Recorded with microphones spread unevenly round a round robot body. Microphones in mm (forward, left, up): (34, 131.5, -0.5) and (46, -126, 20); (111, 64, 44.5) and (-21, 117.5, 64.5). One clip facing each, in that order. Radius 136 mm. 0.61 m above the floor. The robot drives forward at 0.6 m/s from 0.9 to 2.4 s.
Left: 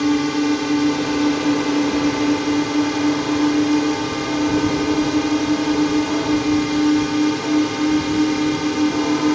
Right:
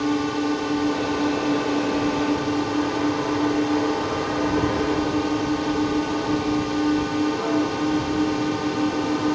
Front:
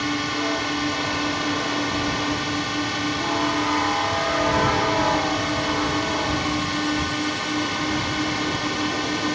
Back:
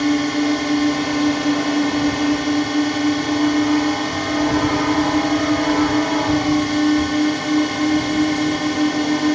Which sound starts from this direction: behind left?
A drone, at 0.0 s.